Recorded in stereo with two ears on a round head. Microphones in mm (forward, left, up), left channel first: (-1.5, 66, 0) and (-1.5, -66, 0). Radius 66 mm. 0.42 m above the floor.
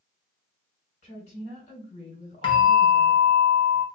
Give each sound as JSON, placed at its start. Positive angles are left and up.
{"t": 1.0, "sound": "a woman speaking", "side_deg": 45, "distance_m": 3.0}
{"t": 2.4, "sound": "a bell", "side_deg": 35, "distance_m": 1.2}